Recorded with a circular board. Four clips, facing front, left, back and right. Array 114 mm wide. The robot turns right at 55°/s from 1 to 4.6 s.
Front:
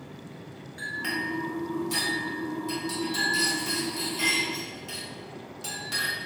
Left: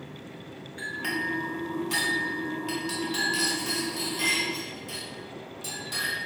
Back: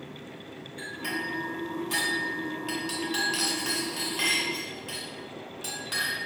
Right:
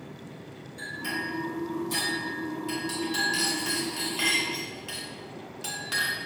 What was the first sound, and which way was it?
A clink, 60° left.